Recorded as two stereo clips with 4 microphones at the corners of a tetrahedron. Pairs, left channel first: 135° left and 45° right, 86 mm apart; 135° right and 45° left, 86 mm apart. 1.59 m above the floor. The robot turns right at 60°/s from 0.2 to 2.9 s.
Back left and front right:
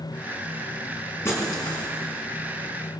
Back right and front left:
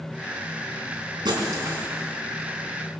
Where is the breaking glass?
75° left, 5.5 m; by 1.9 s 115° left, 5.5 m.